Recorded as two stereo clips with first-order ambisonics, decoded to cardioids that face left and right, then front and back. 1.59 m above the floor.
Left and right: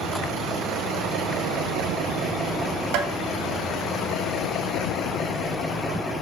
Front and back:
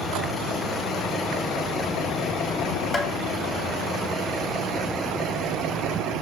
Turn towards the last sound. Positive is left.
turn(degrees=-80)